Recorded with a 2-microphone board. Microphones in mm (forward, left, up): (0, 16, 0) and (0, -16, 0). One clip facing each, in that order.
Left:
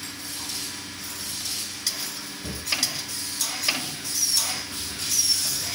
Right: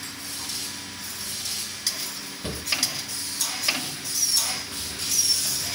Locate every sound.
2.4 s a drawer: 45° right (ahead or behind), 2 m